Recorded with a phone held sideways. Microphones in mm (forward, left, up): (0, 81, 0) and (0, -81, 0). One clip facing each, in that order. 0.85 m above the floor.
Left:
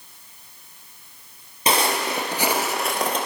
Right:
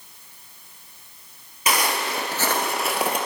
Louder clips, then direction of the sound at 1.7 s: Left 2 dB; 30° left (ahead or behind).